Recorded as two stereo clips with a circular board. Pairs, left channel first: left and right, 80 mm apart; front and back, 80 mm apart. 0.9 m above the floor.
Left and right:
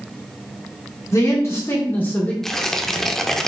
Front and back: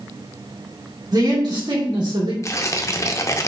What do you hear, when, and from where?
1.1 s a man speaking: 140° left, 2.0 m; by 2.3 s 160° left, 2.0 m
2.4 s tearing paper: 5° left, 0.5 m